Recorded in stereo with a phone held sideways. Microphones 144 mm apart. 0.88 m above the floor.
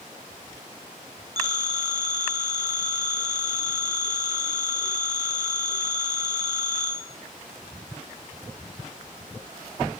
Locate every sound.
1.4 s a phone ringing: 25° right (ahead or behind), 3.5 m